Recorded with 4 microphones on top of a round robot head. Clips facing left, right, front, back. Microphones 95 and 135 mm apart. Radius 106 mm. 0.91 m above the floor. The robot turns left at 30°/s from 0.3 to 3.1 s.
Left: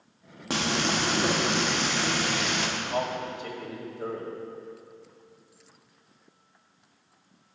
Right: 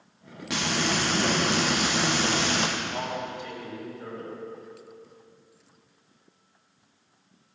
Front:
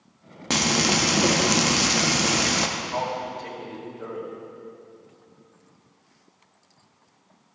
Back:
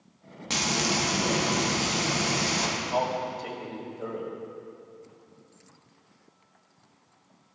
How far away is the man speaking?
About 4.5 m.